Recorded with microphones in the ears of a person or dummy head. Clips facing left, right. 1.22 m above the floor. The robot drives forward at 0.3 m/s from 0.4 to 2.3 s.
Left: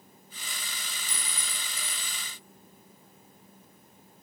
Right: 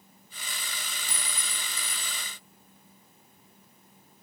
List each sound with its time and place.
1.1 s a clink: 30° right (ahead or behind), 7.5 m; by 2.2 s 35° right (ahead or behind), 7 m